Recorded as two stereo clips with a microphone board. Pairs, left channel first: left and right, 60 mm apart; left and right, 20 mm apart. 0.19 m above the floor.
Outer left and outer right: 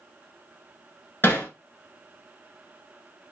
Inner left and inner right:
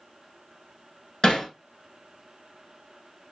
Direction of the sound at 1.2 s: 40° left (ahead or behind).